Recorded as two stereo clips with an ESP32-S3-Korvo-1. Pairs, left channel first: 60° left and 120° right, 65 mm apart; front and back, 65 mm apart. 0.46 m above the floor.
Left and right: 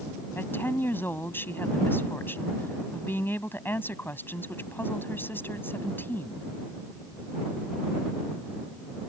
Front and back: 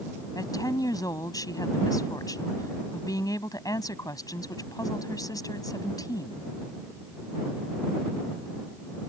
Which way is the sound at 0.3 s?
10° left.